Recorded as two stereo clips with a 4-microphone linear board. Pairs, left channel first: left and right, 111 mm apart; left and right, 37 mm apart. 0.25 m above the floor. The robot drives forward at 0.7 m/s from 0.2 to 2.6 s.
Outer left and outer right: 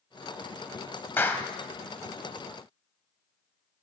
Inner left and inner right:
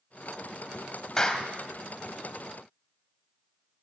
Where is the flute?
No flute in this recording.